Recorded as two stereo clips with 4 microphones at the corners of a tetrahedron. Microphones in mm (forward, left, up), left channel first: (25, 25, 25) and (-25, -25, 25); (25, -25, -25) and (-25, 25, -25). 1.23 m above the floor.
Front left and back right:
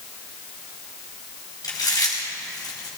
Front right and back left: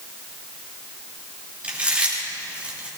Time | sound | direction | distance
1.6 | chewing | 65° left | 4 m